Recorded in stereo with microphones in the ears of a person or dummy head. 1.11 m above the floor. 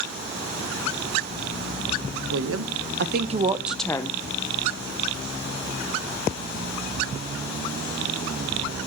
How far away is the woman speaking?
About 1.2 m.